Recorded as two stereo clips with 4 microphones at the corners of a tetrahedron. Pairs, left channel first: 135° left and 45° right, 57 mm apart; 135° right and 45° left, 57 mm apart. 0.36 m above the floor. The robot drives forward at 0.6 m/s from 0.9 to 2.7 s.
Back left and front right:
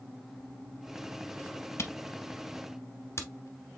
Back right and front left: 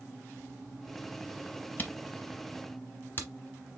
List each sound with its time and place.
1.8 s a camera shutter: 170° left, 0.8 m; by 3.8 s 175° left, 1.3 m